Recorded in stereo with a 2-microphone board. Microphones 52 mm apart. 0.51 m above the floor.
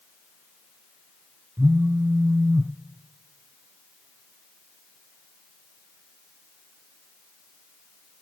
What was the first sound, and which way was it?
A phone buzzing, 55° right (ahead or behind).